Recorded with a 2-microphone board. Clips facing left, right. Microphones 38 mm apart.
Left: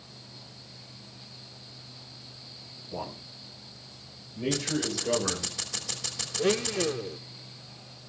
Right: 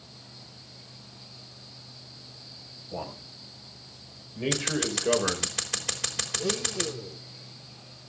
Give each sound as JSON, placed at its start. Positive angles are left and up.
{"t": 2.9, "sound": "a man speaking", "side_deg": -30, "distance_m": 5.5}
{"t": 4.5, "sound": "scissors", "side_deg": -80, "distance_m": 3.5}
{"t": 6.4, "sound": "a blender", "side_deg": 50, "distance_m": 0.6}